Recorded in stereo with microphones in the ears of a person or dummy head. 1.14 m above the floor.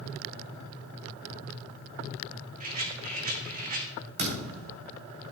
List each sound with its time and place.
2.6 s a rattle: 50° right (ahead or behind), 1.5 m
4.2 s a thud: 55° right (ahead or behind), 3 m